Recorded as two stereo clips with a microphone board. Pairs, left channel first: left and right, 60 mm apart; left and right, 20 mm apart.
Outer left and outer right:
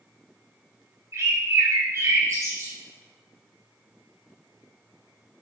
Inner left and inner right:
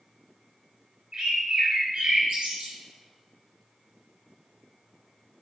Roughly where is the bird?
Right.